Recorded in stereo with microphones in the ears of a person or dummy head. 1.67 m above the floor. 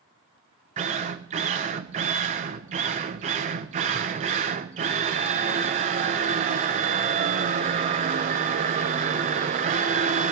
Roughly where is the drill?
Right.